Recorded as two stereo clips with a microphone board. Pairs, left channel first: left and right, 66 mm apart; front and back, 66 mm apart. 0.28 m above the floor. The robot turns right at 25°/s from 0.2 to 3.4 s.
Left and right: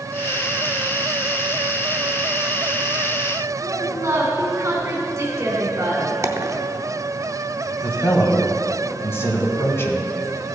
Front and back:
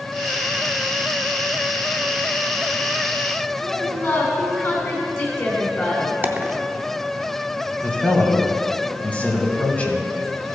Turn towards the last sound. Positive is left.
turn(degrees=60)